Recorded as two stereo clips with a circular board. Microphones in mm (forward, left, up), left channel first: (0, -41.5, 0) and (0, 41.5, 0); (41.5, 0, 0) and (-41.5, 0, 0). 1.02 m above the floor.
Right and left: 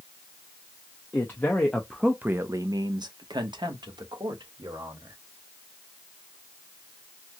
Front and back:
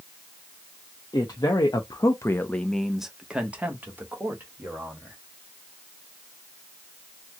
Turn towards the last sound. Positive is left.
turn(degrees=120)